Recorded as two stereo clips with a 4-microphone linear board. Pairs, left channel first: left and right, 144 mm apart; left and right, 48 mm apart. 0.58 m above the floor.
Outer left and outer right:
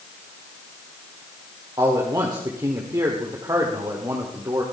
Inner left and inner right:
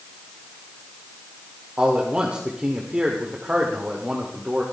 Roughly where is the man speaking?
Right.